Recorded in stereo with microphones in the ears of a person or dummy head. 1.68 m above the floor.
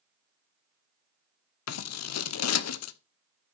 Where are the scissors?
85° left, 1.2 m.